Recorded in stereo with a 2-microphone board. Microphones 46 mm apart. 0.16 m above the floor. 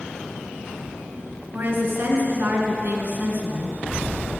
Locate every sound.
1.5 s a woman speaking: 50° right (ahead or behind), 2.5 m